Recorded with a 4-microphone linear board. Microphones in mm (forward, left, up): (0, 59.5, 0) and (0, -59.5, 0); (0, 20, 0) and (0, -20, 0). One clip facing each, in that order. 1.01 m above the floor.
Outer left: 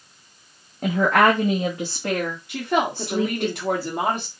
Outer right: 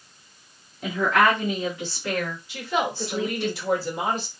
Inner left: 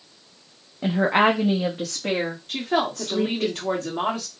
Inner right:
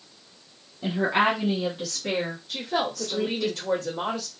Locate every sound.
0.8 s a woman speaking: 50° left (ahead or behind), 0.8 m; by 3.5 s 40° left (ahead or behind), 2 m
2.5 s a woman speaking: 60° left (ahead or behind), 1.7 m